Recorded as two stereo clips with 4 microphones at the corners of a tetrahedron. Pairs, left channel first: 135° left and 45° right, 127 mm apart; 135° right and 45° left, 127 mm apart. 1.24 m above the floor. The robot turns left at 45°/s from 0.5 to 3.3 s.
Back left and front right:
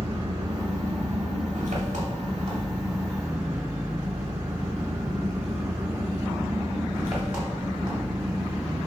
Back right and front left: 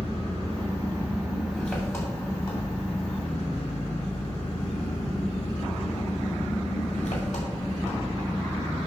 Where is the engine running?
Straight ahead, 2.5 m; by 8.9 s 125° right, 2.5 m.